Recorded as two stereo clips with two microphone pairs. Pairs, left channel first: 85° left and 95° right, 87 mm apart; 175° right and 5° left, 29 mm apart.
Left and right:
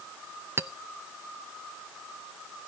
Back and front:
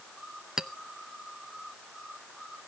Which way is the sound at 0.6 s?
55° right.